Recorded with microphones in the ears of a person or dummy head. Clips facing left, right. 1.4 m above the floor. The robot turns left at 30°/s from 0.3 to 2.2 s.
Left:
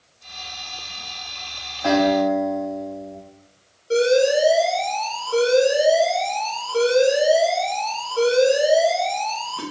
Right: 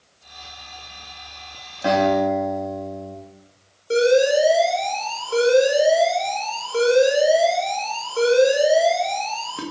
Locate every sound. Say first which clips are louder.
1.8 s a guitar: left 1 dB; 40° right (ahead or behind), 6 m; by 3.1 s 30° right (ahead or behind), 6 m
3.9 s an alarm: right 1 dB; 25° right (ahead or behind), 2 m